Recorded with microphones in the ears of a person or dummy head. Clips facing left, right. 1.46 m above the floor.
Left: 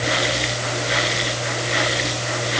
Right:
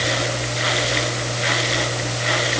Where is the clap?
No clap in this recording.